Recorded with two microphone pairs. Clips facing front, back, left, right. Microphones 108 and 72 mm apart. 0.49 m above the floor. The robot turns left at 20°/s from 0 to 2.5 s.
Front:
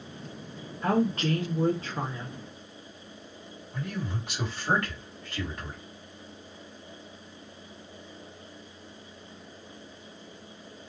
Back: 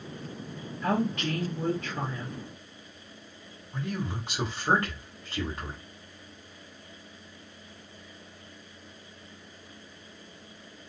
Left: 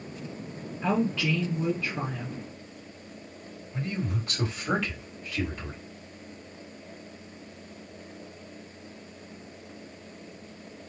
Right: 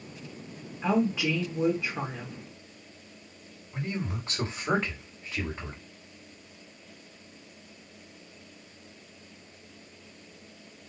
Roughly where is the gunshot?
No gunshot in this recording.